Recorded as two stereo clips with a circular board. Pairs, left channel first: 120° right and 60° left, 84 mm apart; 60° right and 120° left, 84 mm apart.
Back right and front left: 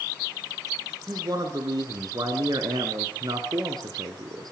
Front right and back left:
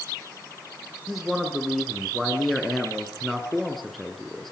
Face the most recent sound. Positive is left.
turn(degrees=25)